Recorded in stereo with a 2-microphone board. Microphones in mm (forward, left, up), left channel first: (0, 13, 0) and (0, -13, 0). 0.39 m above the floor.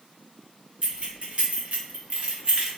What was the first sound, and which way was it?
Keys jangling, 40° right (ahead or behind).